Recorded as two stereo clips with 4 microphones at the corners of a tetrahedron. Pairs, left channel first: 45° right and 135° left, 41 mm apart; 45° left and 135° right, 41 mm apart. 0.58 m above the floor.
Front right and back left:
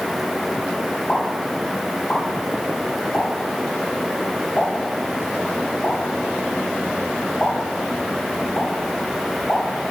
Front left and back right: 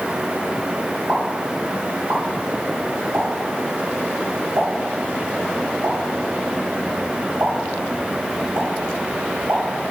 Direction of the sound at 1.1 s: 105° right.